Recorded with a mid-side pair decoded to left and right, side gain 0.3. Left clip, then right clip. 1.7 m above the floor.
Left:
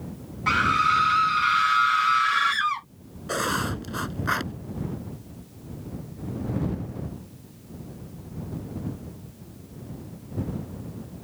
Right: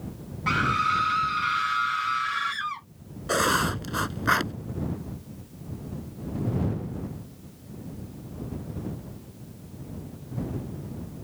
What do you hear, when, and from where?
0.5 s a scream: 30° left; by 2.9 s 65° left
3.3 s writing: 40° right